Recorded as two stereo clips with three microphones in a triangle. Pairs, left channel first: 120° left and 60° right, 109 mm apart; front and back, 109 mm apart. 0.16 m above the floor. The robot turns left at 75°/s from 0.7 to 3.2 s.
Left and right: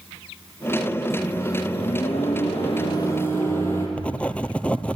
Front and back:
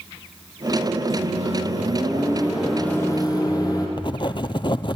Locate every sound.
1.1 s a microwave: 150° right, 4 m; by 3.9 s 50° left, 4 m
4.0 s writing: 40° left, 0.7 m